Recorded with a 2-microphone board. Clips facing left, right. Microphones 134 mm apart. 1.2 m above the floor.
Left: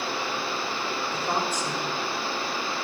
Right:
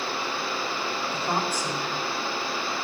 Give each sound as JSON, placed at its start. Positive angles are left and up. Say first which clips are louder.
{"t": 1.1, "sound": "a woman speaking", "louder": "even", "side_deg": -10, "distance_m": 5.5}